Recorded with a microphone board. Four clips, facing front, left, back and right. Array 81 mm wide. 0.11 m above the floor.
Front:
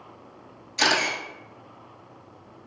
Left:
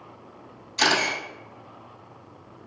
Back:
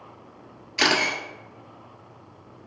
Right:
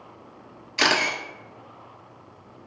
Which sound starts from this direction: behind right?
A camera shutter, at 0.8 s.